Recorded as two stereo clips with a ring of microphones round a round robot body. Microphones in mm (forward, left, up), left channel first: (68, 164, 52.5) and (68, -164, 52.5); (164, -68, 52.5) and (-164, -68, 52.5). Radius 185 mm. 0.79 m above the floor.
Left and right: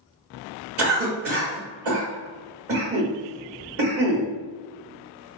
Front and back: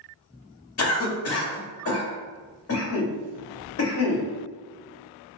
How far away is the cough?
About 1.5 m.